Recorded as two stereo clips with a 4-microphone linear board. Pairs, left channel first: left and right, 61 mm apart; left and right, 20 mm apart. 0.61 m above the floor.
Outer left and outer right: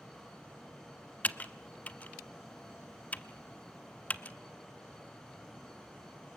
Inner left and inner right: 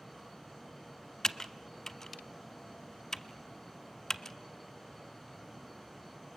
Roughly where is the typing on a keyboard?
Left.